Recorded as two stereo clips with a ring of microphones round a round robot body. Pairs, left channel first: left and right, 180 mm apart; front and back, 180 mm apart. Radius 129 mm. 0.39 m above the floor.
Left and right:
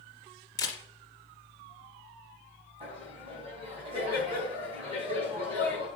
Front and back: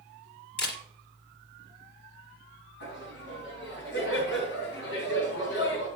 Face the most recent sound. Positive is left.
turn(degrees=-35)